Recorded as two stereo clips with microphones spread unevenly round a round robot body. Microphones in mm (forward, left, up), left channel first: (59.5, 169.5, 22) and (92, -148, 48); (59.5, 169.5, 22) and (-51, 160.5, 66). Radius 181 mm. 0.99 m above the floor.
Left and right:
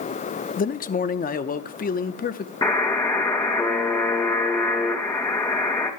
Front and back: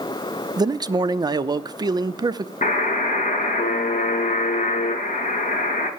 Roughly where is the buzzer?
Ahead.